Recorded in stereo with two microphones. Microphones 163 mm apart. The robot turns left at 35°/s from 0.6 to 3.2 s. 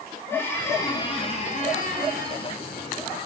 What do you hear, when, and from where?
0.3 s a squeak: 165° left, 3.5 m; by 3.2 s 75° left, 3.5 m